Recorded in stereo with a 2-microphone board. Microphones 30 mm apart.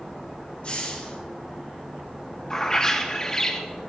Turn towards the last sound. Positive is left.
turn(degrees=20)  # may be behind; listen again after turning